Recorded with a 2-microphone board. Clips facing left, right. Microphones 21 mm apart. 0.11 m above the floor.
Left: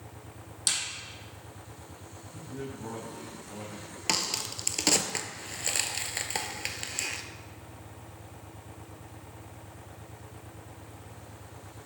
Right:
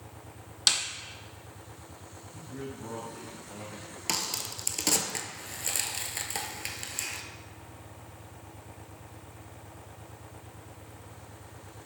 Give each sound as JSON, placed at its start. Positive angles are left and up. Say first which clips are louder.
{"t": 0.7, "sound": "a snare drum", "louder": "right 5 dB", "side_deg": -40, "distance_m": 0.7}
{"t": 2.3, "sound": "a man speaking", "louder": "left 1 dB", "side_deg": 30, "distance_m": 3.0}
{"t": 4.1, "sound": "a crack", "louder": "left 2 dB", "side_deg": 20, "distance_m": 0.5}